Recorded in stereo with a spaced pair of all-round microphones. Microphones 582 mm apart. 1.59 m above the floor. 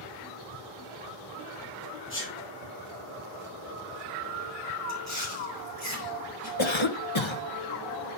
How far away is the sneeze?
About 4 m.